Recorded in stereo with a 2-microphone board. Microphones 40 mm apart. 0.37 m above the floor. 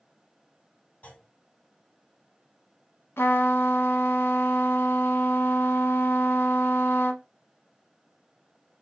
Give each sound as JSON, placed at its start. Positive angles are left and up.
{"t": 1.0, "sound": "a clunk", "side_deg": 40, "distance_m": 2.5}
{"t": 3.2, "sound": "a trumpet", "side_deg": 90, "distance_m": 0.8}